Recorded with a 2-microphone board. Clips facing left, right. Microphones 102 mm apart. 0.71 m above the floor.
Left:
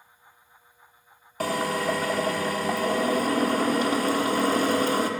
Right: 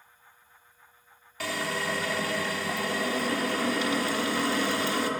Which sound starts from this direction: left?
A drill, at 1.4 s.